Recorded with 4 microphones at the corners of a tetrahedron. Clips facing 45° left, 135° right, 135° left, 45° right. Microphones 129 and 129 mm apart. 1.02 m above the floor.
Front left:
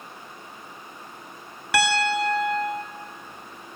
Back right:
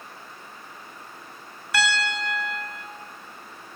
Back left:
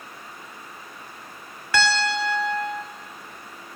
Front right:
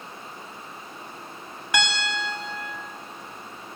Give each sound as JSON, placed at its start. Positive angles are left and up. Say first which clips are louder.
{"t": 1.7, "sound": "a piano", "louder": "front left 4 dB, back left 5 dB", "azimuth_deg": 30, "distance_m": 1.4}